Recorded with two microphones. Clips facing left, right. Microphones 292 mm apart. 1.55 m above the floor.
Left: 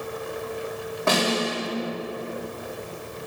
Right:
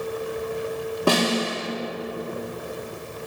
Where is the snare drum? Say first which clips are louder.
Right 2 dB; 40° right (ahead or behind), 2.5 m.